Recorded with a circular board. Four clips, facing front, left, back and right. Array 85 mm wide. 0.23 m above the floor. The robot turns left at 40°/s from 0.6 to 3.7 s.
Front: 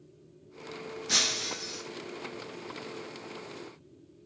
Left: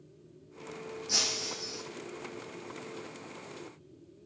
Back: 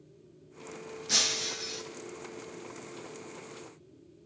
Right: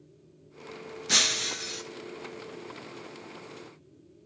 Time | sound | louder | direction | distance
1.1 | breaking glass | right 9 dB, front 1 dB | 75° right | 0.6 m